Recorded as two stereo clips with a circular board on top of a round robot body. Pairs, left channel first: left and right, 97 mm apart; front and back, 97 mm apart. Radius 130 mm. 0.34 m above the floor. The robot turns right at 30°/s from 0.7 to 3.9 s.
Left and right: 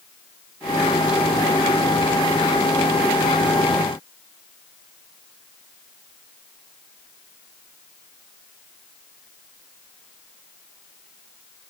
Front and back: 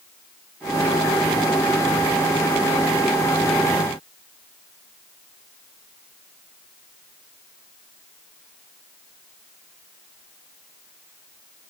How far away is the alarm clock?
I don't hear an alarm clock.